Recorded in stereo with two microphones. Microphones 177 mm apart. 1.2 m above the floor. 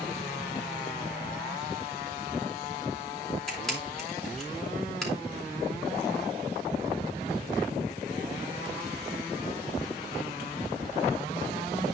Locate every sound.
3.5 s a camera shutter: 5° left (ahead or behind), 6.5 m